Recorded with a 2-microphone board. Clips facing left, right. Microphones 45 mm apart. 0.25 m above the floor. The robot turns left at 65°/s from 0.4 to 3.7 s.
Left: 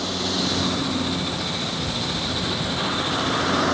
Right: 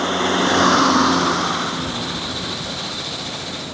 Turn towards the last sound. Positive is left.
turn(degrees=100)